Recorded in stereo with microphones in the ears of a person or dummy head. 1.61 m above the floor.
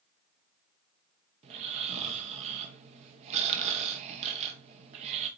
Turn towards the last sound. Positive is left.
turn(degrees=-35)  # may be behind; listen again after turning